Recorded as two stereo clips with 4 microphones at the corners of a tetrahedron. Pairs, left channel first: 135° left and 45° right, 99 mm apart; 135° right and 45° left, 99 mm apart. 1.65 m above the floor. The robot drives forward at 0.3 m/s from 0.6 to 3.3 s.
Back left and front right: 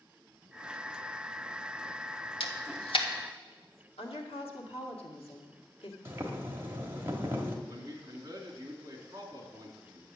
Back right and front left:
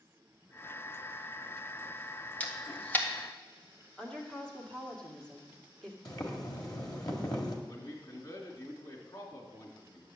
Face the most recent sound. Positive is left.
turn(degrees=-95)